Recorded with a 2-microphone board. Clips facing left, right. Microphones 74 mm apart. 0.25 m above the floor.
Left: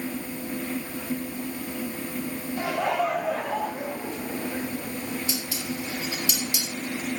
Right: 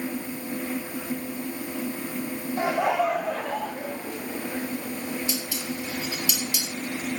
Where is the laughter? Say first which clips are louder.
Right 2 dB; 25° right (ahead or behind), 1.1 m; by 4.9 s 25° left (ahead or behind), 3.5 m.